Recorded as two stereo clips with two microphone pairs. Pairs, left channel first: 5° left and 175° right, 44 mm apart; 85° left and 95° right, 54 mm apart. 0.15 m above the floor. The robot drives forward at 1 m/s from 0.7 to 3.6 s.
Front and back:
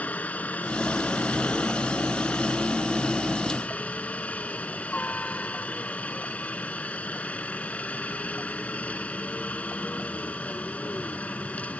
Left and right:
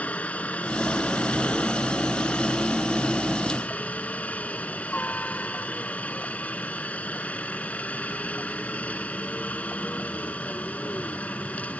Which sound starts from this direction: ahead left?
A helicopter, at 0.0 s.